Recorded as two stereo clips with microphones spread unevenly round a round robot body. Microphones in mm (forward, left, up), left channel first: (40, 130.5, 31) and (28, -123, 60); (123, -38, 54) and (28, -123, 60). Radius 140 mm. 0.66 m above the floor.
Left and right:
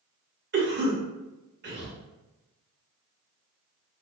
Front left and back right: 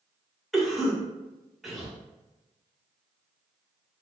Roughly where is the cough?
Ahead right.